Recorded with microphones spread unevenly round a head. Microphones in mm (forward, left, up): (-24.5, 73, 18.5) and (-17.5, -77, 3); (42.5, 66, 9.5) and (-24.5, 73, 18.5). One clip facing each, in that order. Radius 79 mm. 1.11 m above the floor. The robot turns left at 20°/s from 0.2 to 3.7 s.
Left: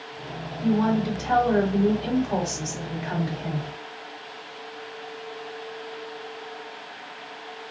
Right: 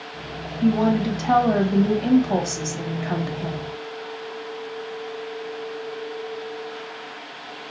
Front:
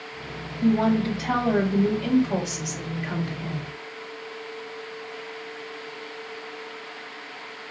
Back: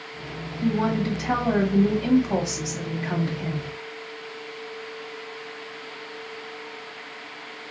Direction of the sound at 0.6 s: 70° right.